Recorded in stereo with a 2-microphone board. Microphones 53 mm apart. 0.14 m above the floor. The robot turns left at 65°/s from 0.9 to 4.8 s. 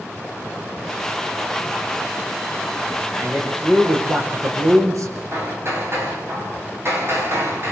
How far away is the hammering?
About 9 m.